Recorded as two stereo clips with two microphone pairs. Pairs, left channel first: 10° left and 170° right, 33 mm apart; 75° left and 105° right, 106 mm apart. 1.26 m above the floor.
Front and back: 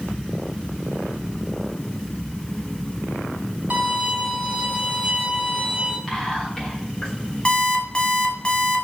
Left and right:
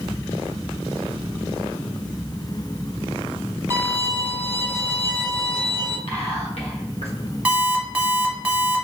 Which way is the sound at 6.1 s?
85° left.